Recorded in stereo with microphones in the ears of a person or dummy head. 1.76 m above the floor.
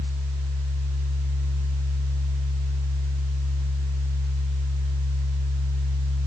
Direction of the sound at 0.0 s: 70° right (ahead or behind).